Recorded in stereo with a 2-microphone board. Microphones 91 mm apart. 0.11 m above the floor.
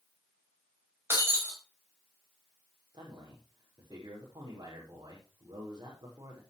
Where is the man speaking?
50° right (ahead or behind), 6.5 m.